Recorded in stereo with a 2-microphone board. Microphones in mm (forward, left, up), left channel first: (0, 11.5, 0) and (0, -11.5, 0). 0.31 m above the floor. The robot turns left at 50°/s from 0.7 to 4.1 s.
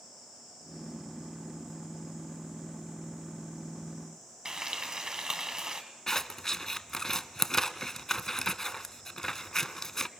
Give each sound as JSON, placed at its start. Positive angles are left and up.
{"t": 4.5, "sound": "frying", "side_deg": -35, "distance_m": 1.9}
{"t": 6.1, "sound": "scissors", "side_deg": 25, "distance_m": 0.5}